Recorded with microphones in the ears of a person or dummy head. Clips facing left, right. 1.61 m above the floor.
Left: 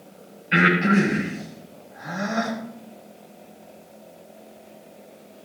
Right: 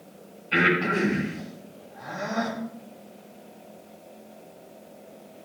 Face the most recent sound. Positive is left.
turn(degrees=20)  # may be behind; listen again after turning